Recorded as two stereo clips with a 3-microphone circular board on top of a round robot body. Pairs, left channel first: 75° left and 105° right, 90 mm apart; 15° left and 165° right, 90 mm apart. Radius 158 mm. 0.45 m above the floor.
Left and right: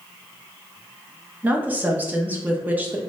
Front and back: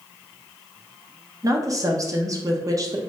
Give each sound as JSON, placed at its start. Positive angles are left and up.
{"t": 1.4, "sound": "a woman speaking", "azimuth_deg": -165, "distance_m": 0.8}